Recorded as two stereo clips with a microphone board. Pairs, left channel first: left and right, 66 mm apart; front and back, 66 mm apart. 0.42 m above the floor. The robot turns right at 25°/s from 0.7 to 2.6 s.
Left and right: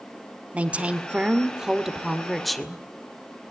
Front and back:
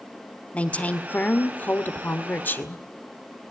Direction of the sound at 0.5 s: 45° right.